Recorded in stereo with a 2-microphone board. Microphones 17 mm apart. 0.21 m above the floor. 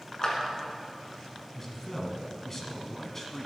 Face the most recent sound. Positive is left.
turn(degrees=15)  # may be behind; listen again after turning